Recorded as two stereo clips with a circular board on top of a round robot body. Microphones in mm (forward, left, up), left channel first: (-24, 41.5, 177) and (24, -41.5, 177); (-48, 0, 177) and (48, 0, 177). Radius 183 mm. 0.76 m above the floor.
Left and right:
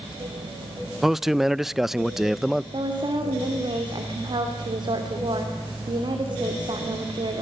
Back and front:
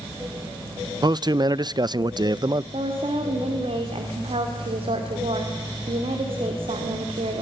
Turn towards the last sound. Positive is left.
turn(degrees=-20)